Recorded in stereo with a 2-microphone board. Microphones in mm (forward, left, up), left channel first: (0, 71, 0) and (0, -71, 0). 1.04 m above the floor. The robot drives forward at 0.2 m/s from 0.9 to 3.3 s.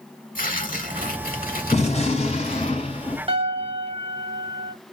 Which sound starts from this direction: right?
A piano, at 3.3 s.